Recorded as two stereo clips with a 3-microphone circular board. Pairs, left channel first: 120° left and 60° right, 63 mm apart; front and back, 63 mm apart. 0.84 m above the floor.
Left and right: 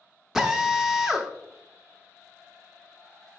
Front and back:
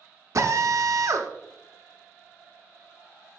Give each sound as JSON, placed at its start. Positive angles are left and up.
{"t": 0.3, "sound": "a drill", "azimuth_deg": -140, "distance_m": 0.8}